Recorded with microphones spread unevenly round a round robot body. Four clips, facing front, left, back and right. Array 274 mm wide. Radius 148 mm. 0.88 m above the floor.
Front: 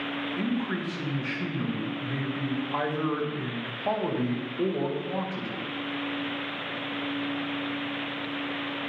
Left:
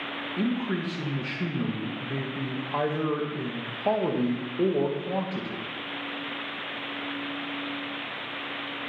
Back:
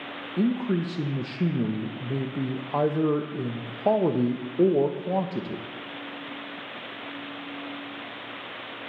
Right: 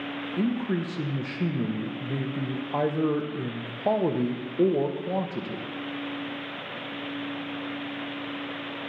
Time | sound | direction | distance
0.4 | a man speaking | 165° right | 0.9 m